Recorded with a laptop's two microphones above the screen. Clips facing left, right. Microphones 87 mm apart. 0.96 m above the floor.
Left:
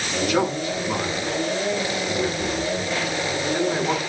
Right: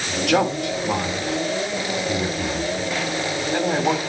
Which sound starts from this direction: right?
A man speaking, at 0.3 s.